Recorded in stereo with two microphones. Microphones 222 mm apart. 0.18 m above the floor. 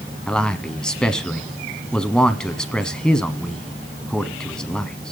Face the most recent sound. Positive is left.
turn(degrees=5)  # may be behind; listen again after turning